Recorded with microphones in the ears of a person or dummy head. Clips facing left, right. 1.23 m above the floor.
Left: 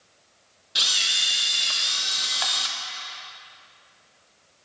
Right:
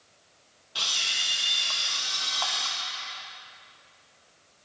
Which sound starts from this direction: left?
A camera shutter, at 0.8 s.